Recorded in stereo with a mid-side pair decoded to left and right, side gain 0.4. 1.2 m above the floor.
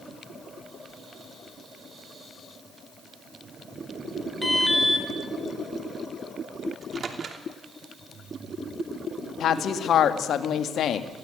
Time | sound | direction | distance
4.4 | an alarm | 10° left | 4.5 m
6.7 | a microwave | 45° right | 3 m
9.4 | a woman speaking | 70° left | 2.0 m